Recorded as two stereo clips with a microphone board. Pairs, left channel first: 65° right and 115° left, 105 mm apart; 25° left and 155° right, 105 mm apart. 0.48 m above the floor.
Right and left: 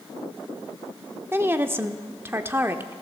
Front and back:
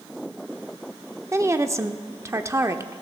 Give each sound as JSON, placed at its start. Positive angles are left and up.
{"t": 1.3, "sound": "a woman speaking", "azimuth_deg": 165, "distance_m": 0.8}